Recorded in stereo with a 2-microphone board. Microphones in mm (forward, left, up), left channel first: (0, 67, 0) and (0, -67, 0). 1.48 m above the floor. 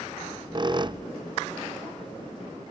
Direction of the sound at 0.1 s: 35° right (ahead or behind).